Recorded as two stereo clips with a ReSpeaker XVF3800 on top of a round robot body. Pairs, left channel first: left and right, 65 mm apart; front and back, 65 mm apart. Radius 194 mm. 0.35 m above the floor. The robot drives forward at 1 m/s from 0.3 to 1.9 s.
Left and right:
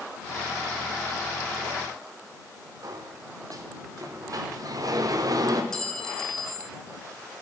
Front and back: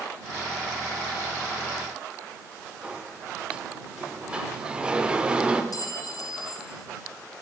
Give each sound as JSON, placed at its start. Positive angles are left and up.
{"t": 2.8, "sound": "a sliding door", "azimuth_deg": -105, "distance_m": 1.0}
{"t": 5.7, "sound": "a clink", "azimuth_deg": 10, "distance_m": 1.0}